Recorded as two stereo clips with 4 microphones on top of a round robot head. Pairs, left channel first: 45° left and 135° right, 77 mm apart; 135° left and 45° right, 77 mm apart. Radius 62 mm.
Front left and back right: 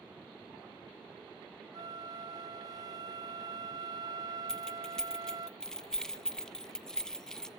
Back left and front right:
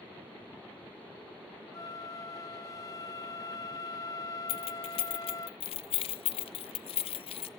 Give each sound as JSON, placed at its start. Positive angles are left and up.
{"t": 1.7, "sound": "a flute", "azimuth_deg": 180, "distance_m": 0.9}
{"t": 4.5, "sound": "keys jangling", "azimuth_deg": 125, "distance_m": 0.7}